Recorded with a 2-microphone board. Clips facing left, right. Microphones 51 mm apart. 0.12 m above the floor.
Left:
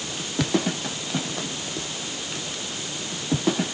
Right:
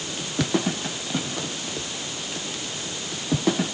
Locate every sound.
Only background noise.